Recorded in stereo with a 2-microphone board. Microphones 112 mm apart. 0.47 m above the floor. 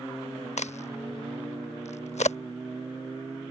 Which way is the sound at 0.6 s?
75° left (ahead or behind).